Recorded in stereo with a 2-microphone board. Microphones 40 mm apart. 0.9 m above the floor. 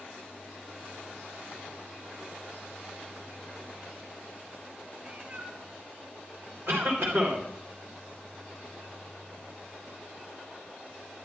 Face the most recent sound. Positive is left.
turn(degrees=-70)  # may be behind; listen again after turning